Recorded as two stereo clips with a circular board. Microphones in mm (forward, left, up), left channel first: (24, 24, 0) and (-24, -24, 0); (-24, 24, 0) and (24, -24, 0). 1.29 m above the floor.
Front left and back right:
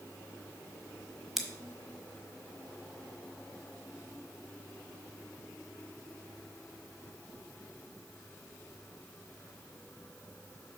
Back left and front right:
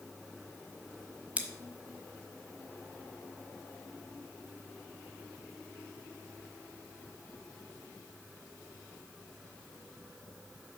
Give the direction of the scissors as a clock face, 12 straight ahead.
2 o'clock.